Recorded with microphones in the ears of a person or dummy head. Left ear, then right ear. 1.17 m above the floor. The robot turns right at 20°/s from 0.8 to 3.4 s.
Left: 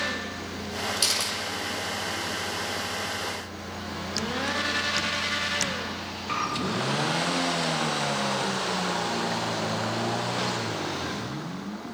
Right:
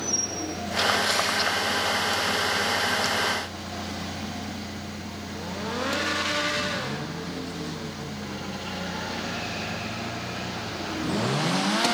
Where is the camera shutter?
85° left, 6.5 m.